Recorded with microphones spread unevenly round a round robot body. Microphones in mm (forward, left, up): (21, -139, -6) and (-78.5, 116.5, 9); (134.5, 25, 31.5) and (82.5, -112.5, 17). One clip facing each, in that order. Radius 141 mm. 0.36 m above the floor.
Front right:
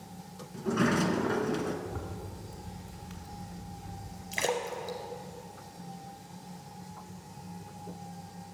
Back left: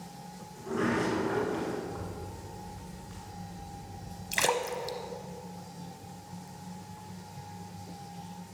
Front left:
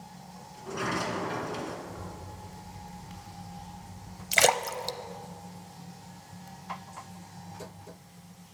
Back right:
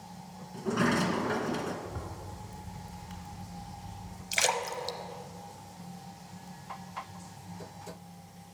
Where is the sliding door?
85° right, 1.8 m.